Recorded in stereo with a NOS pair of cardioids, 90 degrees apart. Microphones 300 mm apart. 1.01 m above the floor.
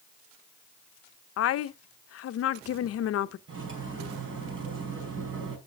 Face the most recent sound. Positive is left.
turn(degrees=-40)